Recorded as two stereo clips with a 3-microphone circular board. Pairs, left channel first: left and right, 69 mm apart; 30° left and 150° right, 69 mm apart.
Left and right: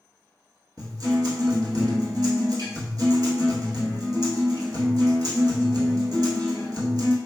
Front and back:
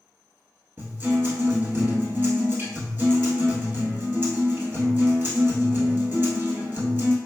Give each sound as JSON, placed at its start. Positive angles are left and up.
{"t": 0.8, "sound": "a guitar", "azimuth_deg": -85, "distance_m": 1.3}